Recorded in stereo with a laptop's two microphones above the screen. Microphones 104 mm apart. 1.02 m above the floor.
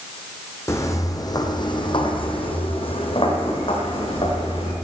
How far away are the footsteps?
About 1.9 m.